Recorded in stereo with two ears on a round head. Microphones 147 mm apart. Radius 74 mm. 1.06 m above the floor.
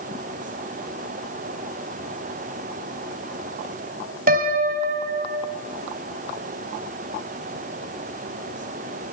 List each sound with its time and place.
4.3 s a piano: 55° right (ahead or behind), 4 m